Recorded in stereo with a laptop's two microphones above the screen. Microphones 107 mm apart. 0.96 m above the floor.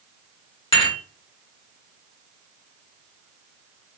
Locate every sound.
0.7 s dishes clattering: 50° left (ahead or behind), 1.2 m